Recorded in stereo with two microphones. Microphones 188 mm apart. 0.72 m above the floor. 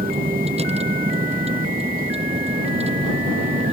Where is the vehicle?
35° right (ahead or behind).